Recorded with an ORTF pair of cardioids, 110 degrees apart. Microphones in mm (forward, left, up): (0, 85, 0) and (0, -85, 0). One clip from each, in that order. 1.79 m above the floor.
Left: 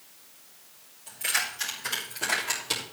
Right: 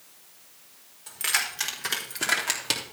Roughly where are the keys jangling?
Ahead right.